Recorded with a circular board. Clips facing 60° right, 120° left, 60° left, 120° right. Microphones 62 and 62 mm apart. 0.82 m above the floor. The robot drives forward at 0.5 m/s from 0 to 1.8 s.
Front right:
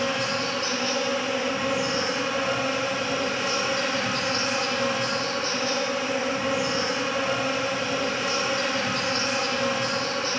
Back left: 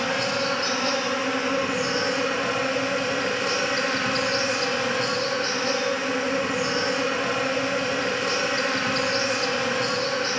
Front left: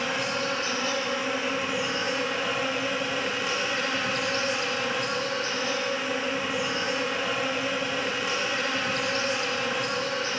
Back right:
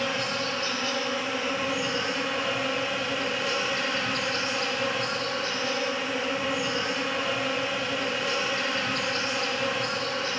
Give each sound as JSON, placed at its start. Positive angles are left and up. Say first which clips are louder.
{"t": 0.0, "sound": "an insect", "louder": "back left 1 dB, front left 1 dB", "azimuth_deg": 140, "distance_m": 2.0}